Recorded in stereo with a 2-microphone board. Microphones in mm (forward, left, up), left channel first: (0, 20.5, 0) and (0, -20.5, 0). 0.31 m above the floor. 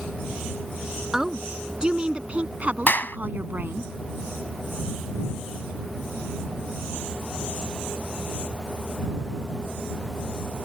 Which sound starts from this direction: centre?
A woman speaking, at 1.1 s.